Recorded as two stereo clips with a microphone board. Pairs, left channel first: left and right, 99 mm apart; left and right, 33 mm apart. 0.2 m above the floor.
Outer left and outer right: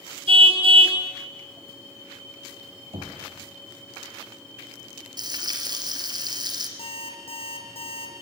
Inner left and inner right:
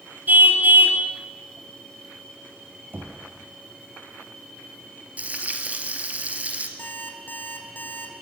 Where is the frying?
45° right (ahead or behind), 3 m.